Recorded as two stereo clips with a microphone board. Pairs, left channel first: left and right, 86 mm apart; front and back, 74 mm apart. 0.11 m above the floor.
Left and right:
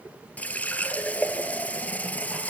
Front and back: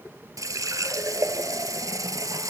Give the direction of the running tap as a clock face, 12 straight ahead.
7 o'clock.